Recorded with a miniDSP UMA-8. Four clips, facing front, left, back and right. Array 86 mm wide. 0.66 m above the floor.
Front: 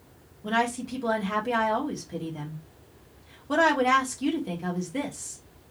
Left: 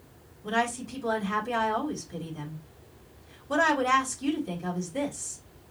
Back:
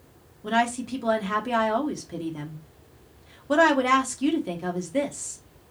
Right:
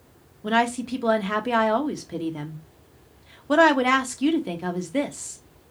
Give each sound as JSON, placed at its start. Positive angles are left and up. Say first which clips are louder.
{"t": 0.4, "sound": "a woman speaking", "louder": "right 6 dB, back 2 dB", "azimuth_deg": -105, "distance_m": 1.4}